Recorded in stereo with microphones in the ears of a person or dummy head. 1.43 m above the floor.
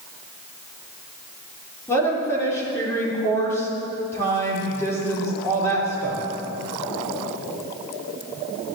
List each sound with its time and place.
1.9 s a woman speaking: 15° left (ahead or behind), 3.5 m